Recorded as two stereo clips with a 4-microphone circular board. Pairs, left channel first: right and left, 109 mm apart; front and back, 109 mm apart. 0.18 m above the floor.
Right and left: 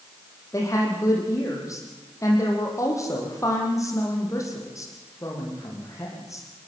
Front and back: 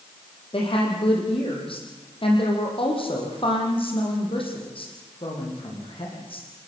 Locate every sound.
0.5 s a woman speaking: 30° right, 8 m